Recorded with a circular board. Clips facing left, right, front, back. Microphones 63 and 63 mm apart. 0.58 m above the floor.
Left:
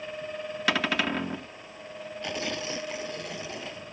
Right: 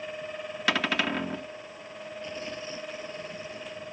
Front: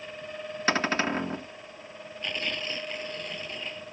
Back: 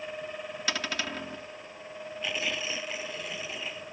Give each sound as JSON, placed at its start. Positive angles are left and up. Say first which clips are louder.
{"t": 0.7, "sound": "a cupboard door", "louder": "even, front 8 dB", "azimuth_deg": 0}
{"t": 2.2, "sound": "tearing paper", "louder": "left 6 dB, even", "azimuth_deg": 95}